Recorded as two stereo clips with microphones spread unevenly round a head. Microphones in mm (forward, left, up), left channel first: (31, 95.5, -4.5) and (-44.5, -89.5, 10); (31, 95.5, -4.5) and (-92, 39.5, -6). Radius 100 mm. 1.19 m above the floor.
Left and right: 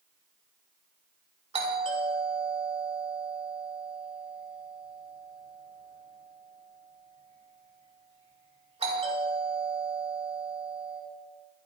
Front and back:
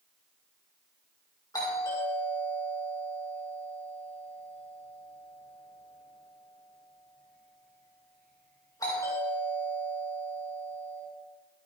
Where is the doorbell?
50° right, 5.5 m.